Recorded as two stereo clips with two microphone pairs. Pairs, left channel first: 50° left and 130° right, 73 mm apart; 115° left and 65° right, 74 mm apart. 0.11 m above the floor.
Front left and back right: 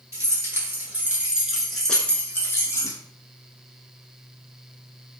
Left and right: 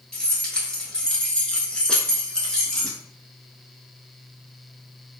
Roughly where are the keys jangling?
Behind.